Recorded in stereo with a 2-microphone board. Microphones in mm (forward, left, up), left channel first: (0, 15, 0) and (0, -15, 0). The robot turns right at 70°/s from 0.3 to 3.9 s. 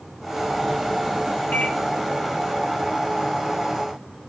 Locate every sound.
1.5 s a microwave: 75° left (ahead or behind), 1.6 m; by 1.8 s 85° left, 1.6 m